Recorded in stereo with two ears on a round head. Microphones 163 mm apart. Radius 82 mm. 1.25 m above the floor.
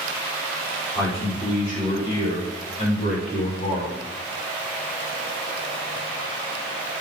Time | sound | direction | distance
0.9 | a man speaking | 20° left (ahead or behind) | 4 m